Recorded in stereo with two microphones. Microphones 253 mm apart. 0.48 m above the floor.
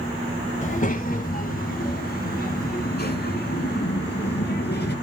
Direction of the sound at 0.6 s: 30° left (ahead or behind).